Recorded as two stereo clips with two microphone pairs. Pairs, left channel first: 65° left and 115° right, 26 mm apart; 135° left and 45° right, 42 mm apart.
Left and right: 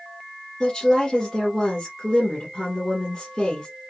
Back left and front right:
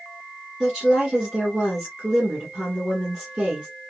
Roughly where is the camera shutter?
I don't hear a camera shutter.